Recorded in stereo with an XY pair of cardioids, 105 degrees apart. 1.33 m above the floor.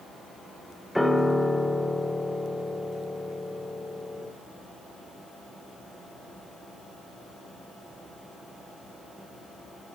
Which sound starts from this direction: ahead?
A piano, at 0.9 s.